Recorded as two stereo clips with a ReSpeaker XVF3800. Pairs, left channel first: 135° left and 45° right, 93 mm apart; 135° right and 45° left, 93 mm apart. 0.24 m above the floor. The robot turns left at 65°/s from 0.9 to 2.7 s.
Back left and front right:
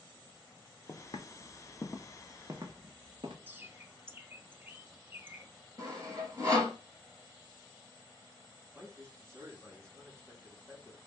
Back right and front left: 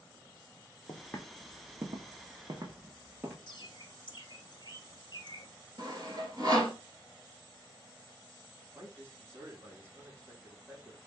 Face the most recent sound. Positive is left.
turn(degrees=5)